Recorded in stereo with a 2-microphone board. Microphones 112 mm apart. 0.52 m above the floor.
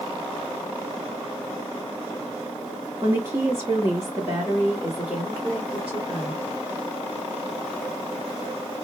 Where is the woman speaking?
25° right (ahead or behind), 1.0 m; by 6.4 s 5° right (ahead or behind), 2 m.